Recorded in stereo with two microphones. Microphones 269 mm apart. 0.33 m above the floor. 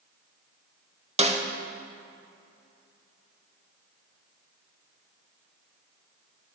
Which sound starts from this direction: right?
A snare drum, at 1.2 s.